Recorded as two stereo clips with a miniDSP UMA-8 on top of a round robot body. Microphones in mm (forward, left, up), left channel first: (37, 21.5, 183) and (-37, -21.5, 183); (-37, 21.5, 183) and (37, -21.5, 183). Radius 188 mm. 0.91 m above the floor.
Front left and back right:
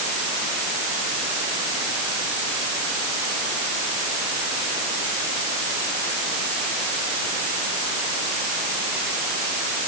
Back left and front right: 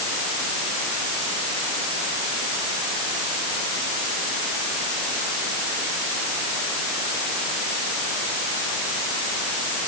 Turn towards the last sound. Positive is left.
No sound to turn to.